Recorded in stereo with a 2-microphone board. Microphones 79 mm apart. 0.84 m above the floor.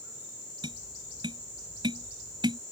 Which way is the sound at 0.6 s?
80° right.